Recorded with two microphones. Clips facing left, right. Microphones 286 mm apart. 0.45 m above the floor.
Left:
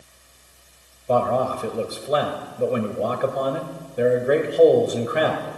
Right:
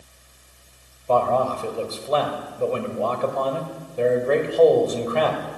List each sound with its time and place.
1.1 s a man speaking: 15° left (ahead or behind), 1.7 m